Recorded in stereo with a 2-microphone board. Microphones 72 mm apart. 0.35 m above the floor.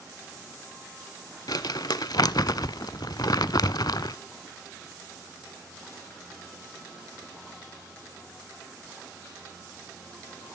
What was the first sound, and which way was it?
Crumpling, 65° left (ahead or behind).